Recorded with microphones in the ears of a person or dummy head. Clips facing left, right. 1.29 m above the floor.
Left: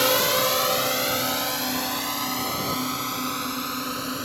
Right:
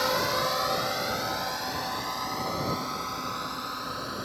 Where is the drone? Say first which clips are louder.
Left 5 dB; 55° left (ahead or behind); by 4.2 s 50° left (ahead or behind).